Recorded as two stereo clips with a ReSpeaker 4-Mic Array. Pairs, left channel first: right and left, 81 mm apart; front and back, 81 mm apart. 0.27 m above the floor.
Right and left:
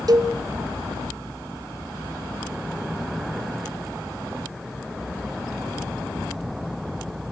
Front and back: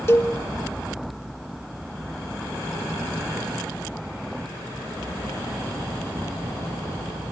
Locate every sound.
0.1 s a cowbell: 55° left, 1.2 m